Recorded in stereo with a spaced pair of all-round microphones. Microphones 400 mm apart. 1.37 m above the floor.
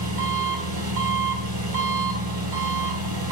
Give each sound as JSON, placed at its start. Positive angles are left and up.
{"t": 0.0, "sound": "an engine running", "side_deg": -60, "distance_m": 2.5}